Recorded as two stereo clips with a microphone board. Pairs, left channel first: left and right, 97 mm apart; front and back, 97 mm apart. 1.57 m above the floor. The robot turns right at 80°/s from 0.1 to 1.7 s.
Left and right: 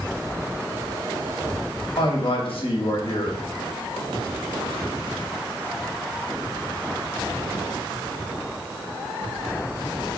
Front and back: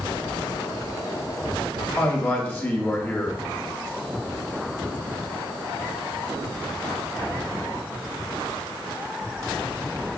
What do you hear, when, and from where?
2.0 s a man speaking: 70° left, 0.8 m